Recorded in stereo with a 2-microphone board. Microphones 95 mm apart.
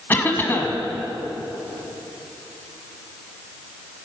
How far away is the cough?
About 1.4 m.